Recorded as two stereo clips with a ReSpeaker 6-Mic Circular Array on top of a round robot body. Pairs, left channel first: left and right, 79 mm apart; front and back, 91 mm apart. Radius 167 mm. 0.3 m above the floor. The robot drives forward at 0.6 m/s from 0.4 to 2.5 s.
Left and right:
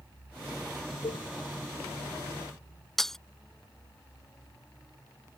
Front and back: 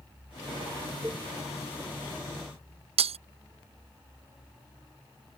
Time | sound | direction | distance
1.0 | a cowbell | 110° left | ?
3.0 | breaking glass | straight behind | ?